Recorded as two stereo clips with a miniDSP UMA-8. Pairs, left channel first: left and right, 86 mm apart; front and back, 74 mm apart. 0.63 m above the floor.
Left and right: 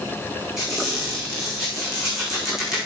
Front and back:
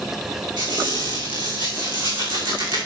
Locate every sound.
0.6 s a squeak: 175° right, 4.5 m